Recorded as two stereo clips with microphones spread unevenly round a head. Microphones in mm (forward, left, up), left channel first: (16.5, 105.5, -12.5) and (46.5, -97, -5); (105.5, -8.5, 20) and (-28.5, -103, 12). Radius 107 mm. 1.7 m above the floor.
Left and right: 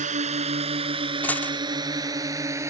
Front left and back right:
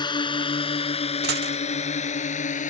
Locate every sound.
0.0 s a drone: 25° right; by 2.7 s 5° right
1.2 s a dropped coin: straight behind